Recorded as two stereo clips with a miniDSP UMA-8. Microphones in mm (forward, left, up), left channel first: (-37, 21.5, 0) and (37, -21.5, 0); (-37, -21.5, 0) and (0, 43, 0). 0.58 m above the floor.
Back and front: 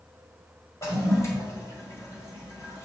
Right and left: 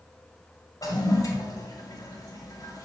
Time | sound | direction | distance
0.8 | a toilet flushing | 155° right | 1.9 m